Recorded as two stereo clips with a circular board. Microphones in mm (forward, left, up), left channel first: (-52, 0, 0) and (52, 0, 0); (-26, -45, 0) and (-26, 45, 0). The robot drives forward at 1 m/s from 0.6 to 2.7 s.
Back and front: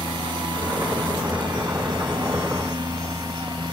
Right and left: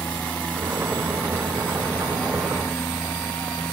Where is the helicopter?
20° right.